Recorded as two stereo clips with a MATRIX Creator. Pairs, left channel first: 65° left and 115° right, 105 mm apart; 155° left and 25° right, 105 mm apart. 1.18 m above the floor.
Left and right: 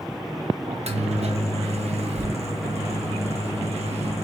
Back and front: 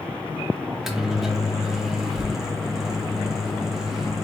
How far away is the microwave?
About 0.7 m.